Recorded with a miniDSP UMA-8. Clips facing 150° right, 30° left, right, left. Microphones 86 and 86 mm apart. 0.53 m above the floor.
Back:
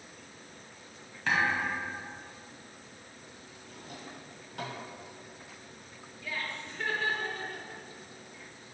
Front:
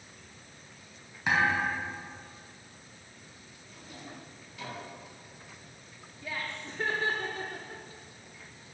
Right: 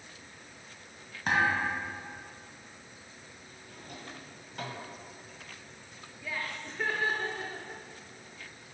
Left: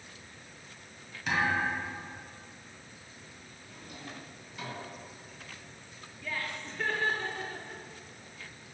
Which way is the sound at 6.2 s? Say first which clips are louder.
Even, even; 15° right.